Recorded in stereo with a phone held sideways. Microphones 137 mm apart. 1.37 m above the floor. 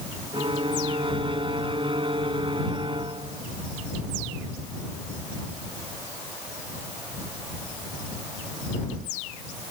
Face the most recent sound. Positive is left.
turn(degrees=-40)  # may be behind; listen again after turning